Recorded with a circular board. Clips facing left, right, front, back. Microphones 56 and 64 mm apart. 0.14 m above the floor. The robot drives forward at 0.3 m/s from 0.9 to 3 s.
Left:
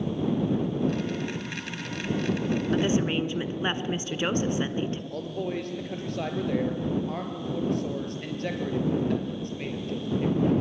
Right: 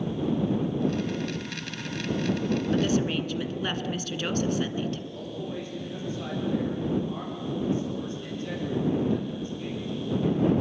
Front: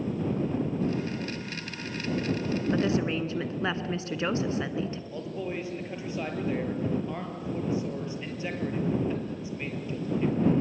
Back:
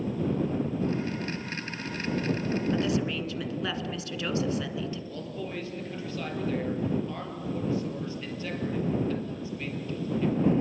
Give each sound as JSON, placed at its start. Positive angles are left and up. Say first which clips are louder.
{"t": 2.7, "sound": "a woman speaking", "louder": "left 1 dB, front 1 dB", "azimuth_deg": 35, "distance_m": 1.3}
{"t": 5.1, "sound": "a man speaking", "louder": "left 4 dB, front 2 dB", "azimuth_deg": 70, "distance_m": 3.5}